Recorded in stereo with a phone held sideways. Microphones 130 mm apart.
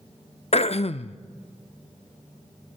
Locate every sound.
0.5 s throat clearing: 55° left (ahead or behind), 0.5 m